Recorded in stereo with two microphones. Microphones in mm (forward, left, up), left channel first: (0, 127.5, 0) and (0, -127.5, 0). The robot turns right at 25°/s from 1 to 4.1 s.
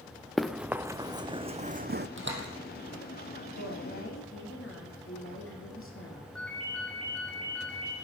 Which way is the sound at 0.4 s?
Centre (ahead or behind).